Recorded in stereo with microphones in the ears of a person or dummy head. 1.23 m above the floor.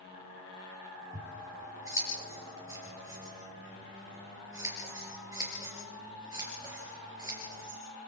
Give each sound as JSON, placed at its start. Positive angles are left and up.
{"t": 1.1, "sound": "scissors", "side_deg": -15, "distance_m": 6.0}